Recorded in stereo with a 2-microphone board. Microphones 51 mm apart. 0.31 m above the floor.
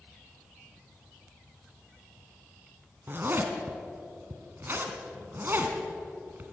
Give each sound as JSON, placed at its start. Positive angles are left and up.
{"t": 3.1, "sound": "a zipper", "side_deg": -40, "distance_m": 2.0}